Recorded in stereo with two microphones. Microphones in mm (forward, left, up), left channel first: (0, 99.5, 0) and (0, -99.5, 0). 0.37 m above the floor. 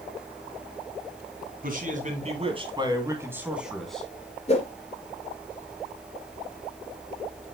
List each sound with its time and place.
1.6 s a man speaking: 50° right (ahead or behind), 3 m; by 4.1 s 5° left (ahead or behind), 2.5 m
4.5 s a whoosh: 35° left (ahead or behind), 3 m